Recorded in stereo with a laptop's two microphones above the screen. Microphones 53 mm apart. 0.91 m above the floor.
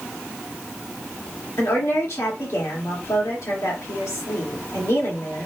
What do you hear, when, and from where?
1.6 s a woman speaking: 65° left (ahead or behind), 1.9 m